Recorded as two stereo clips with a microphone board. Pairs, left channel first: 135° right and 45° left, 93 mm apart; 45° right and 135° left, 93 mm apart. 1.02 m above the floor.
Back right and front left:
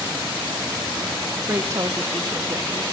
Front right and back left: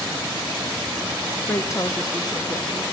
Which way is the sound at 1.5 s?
10° right.